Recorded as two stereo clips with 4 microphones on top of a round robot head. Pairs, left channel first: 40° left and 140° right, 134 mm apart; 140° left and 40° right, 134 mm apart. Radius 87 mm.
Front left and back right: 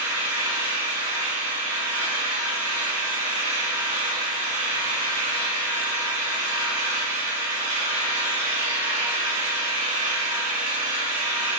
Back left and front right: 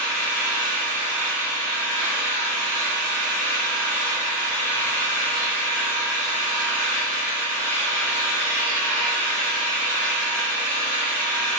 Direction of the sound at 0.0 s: 145° right.